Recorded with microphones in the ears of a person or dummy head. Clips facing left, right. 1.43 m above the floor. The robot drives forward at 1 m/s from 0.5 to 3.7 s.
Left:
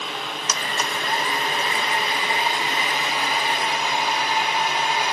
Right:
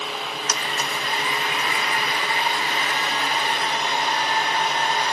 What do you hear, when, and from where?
0.5 s a blender: 75° left (ahead or behind), 1.0 m; by 5.1 s 15° left (ahead or behind), 3.5 m